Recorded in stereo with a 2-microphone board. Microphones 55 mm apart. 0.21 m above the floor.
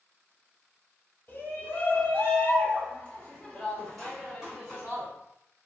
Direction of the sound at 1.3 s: 40° left (ahead or behind).